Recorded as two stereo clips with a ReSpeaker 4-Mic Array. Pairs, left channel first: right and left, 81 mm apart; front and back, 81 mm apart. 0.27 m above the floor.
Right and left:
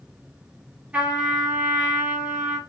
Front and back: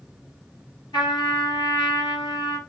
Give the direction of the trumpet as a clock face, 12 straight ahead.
11 o'clock.